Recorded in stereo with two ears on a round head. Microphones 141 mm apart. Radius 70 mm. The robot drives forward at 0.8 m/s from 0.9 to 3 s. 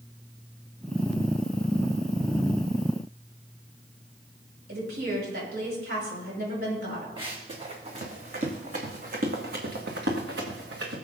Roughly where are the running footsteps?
Right.